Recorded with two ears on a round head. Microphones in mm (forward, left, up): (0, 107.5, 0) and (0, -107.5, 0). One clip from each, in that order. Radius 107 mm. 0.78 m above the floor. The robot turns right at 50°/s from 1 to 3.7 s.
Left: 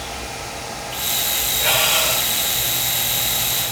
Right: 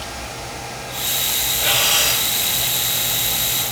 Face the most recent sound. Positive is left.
turn(degrees=-80)